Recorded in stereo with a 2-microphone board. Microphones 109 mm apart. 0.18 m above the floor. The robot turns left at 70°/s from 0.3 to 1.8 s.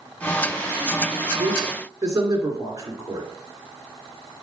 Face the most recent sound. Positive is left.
turn(degrees=-35)  # may be behind; listen again after turning